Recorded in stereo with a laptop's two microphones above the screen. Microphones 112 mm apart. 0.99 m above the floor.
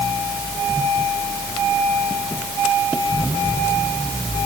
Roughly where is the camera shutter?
No camera shutter in this recording.